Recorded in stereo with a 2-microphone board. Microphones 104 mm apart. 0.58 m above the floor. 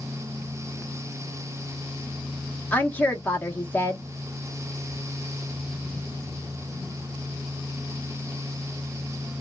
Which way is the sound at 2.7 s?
15° left (ahead or behind).